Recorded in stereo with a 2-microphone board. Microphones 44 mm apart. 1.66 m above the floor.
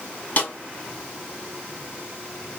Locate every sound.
0.4 s a snare drum: 40° left (ahead or behind), 1.6 m